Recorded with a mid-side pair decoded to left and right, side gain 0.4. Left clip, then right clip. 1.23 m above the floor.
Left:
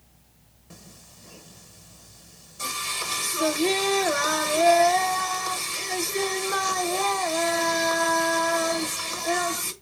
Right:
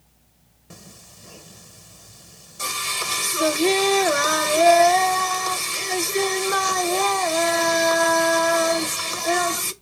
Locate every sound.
0.7 s singing: 45° right, 0.7 m